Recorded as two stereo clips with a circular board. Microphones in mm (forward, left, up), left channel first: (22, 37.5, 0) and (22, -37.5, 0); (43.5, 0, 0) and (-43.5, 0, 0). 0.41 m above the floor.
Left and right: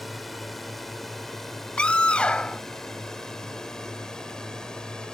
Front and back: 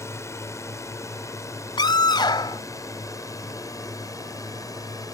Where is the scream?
15° left.